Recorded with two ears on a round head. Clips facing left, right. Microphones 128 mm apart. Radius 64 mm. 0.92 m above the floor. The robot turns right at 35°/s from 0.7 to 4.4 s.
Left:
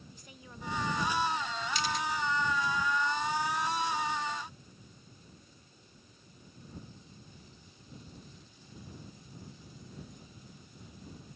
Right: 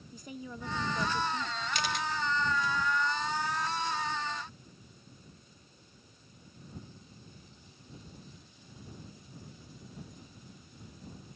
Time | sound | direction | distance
0.1 | a woman speaking | 85° right | ?
1.7 | a camera shutter | 45° right (ahead or behind) | ?